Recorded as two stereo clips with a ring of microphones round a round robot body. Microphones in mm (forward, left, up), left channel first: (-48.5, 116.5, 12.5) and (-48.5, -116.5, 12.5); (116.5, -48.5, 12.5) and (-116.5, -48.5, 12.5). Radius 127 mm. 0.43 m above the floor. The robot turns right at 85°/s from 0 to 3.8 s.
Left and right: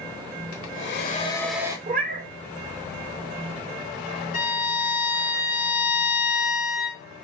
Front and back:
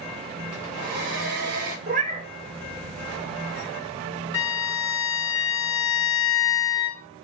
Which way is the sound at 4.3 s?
35° left.